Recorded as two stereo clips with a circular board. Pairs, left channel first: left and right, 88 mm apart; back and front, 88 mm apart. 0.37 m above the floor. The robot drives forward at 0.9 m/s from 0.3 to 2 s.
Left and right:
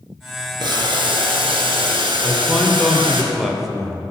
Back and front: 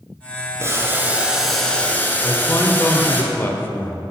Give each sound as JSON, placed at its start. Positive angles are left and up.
{"t": 0.6, "sound": "boiling", "azimuth_deg": -55, "distance_m": 1.5}
{"t": 2.2, "sound": "a man speaking", "azimuth_deg": -175, "distance_m": 0.9}